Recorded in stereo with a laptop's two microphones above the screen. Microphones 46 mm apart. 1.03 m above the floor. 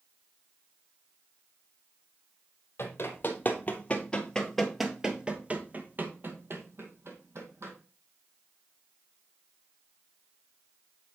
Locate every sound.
2.8 s running footsteps: 50° left (ahead or behind), 1.6 m; by 7.7 s 60° right (ahead or behind), 2 m